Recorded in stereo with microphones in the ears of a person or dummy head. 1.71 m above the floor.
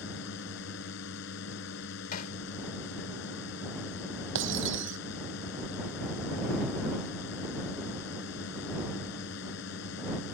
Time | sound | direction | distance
0.0 | a drone | 70° left (ahead or behind) | ?
2.1 | hammering | 55° left (ahead or behind) | ?
4.3 | breaking glass | 75° right (ahead or behind) | ?